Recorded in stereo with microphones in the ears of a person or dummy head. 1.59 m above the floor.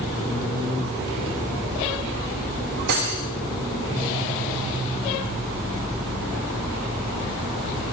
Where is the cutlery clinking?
55° right (ahead or behind), 1.7 m.